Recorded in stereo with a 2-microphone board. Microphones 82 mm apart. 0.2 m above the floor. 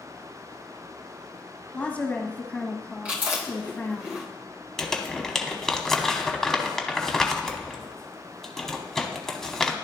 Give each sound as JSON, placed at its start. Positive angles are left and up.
{"t": 1.7, "sound": "a woman speaking", "side_deg": 20, "distance_m": 1.2}
{"t": 3.0, "sound": "chewing", "side_deg": -20, "distance_m": 2.0}
{"t": 4.8, "sound": "crumpling", "side_deg": 5, "distance_m": 0.8}